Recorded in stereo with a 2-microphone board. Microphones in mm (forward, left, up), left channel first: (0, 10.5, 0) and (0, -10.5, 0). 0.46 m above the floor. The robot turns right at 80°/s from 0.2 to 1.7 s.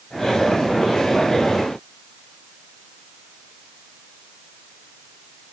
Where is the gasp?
I don't hear a gasp.